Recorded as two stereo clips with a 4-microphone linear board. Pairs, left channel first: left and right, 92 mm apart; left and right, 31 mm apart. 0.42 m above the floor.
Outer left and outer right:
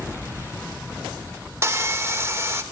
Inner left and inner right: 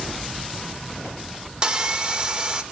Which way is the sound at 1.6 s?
30° right (ahead or behind).